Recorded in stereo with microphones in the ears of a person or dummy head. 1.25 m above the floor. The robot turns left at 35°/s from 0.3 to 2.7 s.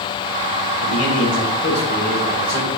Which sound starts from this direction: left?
A man speaking, at 0.8 s.